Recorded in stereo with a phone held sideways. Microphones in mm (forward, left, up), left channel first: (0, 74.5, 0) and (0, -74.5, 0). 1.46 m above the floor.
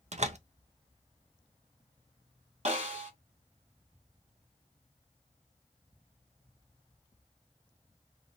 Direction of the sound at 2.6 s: 55° right (ahead or behind).